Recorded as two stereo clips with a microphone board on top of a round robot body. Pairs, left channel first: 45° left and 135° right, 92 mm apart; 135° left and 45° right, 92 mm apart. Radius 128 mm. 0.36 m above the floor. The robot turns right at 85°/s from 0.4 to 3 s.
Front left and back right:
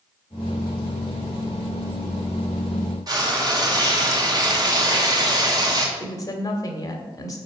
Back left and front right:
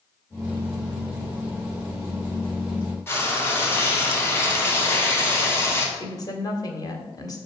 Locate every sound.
3.1 s frying: 165° right, 2 m
6.0 s a woman speaking: 95° left, 1.9 m